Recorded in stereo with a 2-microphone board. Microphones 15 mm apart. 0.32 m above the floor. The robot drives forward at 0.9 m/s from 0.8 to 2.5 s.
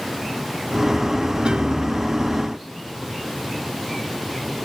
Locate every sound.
1.4 s a piano: 90° right, 0.9 m; by 2.3 s 50° right (ahead or behind), 1.2 m